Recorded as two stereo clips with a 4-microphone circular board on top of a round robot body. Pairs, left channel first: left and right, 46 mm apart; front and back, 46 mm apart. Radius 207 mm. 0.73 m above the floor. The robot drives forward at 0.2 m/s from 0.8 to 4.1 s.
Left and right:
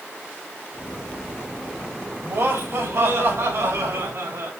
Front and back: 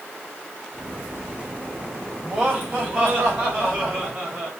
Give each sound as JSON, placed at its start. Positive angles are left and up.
{"t": 2.2, "sound": "laughter", "azimuth_deg": -105, "distance_m": 4.5}